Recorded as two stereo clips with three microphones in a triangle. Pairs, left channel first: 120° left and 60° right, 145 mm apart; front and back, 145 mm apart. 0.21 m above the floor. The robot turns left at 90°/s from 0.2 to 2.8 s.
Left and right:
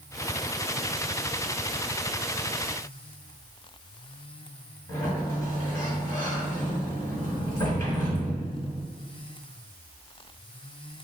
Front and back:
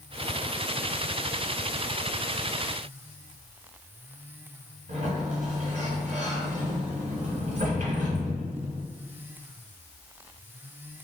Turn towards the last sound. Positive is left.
turn(degrees=180)